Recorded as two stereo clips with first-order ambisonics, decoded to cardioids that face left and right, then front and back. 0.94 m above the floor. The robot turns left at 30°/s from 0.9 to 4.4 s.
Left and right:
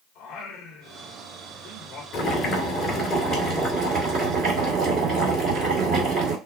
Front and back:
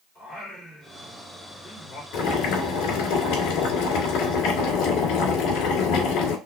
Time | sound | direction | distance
0.1 | singing | 75° left | 2 m
2.1 | boiling | 30° left | 2.5 m